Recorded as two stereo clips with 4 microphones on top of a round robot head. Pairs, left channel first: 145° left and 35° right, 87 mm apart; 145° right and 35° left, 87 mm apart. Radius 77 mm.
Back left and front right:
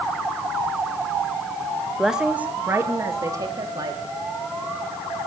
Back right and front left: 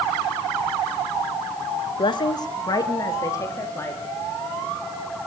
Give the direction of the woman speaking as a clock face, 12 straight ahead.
4 o'clock.